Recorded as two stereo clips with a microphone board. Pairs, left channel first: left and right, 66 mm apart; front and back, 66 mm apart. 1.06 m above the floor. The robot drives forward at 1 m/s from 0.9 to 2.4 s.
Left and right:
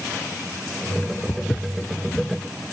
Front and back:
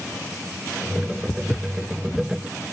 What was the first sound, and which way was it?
Footsteps, 45° left.